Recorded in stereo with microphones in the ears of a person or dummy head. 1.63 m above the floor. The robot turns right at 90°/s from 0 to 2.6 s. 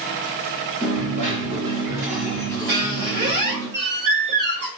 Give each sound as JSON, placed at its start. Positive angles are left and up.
{"t": 0.8, "sound": "a dropped coin", "azimuth_deg": -135, "distance_m": 1.3}
{"t": 2.7, "sound": "a squeak", "side_deg": -20, "distance_m": 0.7}